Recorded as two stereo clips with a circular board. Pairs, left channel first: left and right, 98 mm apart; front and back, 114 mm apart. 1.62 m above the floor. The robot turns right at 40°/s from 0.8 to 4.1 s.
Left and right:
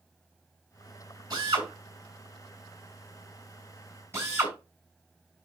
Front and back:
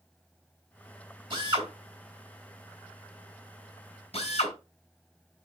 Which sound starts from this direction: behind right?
A drill, at 1.3 s.